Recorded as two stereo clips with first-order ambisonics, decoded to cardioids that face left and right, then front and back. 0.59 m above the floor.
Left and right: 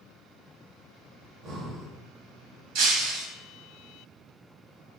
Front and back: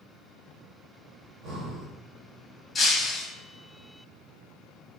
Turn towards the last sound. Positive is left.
turn(degrees=-75)